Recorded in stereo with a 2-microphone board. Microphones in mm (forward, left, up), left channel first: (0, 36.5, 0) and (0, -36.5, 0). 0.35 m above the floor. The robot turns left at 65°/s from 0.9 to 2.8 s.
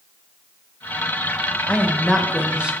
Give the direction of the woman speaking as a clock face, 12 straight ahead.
11 o'clock.